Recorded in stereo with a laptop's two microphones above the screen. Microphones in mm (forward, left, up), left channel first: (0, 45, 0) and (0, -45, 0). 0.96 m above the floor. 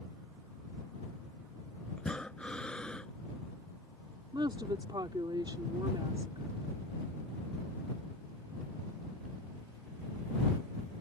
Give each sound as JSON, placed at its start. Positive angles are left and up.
{"t": 2.0, "sound": "breathing", "side_deg": 10}
{"t": 4.3, "sound": "a woman speaking", "side_deg": -60}